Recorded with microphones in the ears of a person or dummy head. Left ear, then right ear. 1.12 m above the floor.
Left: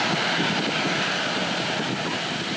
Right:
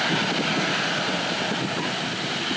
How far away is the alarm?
No alarm in this recording.